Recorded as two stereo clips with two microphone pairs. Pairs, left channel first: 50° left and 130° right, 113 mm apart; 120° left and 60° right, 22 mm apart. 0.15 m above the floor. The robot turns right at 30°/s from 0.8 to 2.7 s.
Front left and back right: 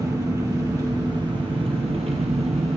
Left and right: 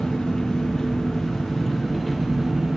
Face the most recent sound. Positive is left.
turn(degrees=-130)